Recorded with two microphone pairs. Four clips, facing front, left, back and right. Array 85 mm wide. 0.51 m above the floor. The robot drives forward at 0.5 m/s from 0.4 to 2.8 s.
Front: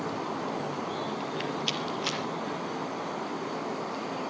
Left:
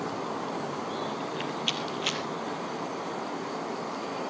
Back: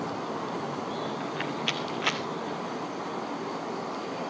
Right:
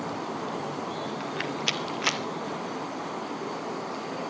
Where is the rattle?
110° right, 1.6 m; by 2.2 s 125° right, 1.9 m.